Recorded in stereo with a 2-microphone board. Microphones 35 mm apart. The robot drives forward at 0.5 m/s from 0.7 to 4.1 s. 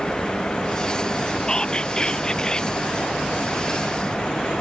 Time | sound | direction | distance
1.5 | whispering | 20° left (ahead or behind) | ?